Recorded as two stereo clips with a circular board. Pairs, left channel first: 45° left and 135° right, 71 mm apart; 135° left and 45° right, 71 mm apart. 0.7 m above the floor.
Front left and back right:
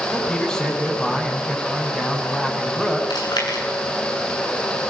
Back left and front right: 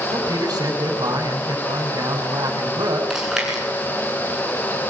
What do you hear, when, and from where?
0.1 s a man speaking: 35° right, 6.5 m
3.1 s chewing: 40° left, 9 m